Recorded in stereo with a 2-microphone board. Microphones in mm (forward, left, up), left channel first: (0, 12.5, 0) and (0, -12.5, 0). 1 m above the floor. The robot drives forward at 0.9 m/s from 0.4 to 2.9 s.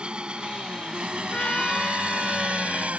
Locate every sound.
0.0 s an engine running: 35° right (ahead or behind); by 3.0 s 55° right (ahead or behind)
1.3 s a trumpet: 45° left (ahead or behind); by 2.9 s 20° left (ahead or behind)